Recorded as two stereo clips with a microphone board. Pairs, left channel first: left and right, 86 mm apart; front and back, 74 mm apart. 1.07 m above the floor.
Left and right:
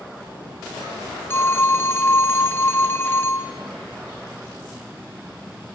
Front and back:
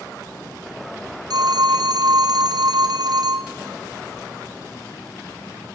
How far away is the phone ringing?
About 0.9 m.